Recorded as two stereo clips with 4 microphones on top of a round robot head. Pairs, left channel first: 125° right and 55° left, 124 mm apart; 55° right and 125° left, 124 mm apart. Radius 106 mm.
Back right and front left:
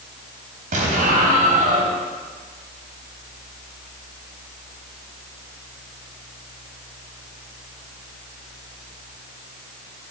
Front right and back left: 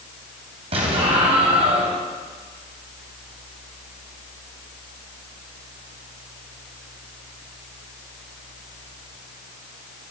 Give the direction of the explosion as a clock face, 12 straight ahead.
9 o'clock.